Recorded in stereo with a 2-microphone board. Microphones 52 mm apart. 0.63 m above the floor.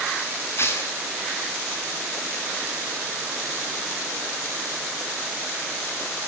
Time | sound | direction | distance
0.6 | tearing paper | 50° left (ahead or behind) | 7 m